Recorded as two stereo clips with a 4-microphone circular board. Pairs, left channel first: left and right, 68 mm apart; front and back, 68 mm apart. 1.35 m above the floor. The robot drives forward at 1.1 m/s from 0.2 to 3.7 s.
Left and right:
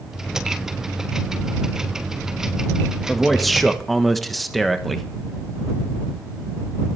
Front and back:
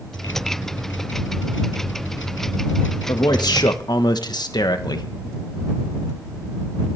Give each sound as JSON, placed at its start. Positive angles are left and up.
{"t": 3.1, "sound": "a man speaking", "azimuth_deg": 0, "distance_m": 1.8}